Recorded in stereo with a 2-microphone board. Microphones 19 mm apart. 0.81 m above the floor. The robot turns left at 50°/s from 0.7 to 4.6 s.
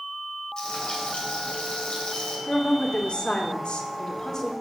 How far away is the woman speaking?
About 2 m.